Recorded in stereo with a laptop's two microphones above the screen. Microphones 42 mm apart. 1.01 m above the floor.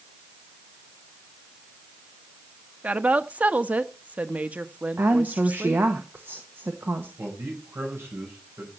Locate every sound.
2.8 s a woman speaking: 40° right (ahead or behind), 1.1 m
5.0 s a woman speaking: 65° right (ahead or behind), 1.3 m
7.2 s a man speaking: 80° right, 5.5 m